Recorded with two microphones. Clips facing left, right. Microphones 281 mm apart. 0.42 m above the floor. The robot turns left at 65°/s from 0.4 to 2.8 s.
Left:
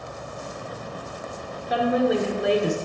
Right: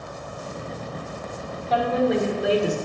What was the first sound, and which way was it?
A woman speaking, 15° left (ahead or behind).